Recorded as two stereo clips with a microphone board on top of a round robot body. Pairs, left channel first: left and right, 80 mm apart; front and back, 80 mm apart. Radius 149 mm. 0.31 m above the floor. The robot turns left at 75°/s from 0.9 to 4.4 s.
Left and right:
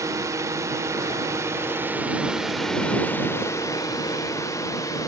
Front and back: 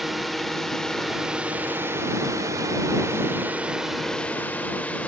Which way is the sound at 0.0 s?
90° right.